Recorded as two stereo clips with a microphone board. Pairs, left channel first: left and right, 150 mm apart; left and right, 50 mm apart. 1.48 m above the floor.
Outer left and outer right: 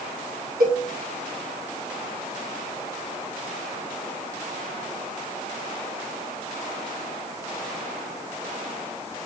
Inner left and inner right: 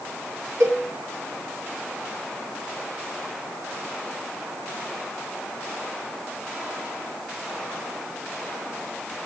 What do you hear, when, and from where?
0.6 s a cowbell: 80° right, 1.1 m